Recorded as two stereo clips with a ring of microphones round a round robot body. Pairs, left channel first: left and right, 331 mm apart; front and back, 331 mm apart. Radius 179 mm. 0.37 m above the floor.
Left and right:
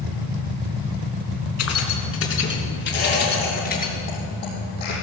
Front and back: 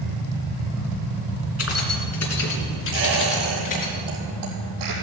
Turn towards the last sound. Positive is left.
turn(degrees=155)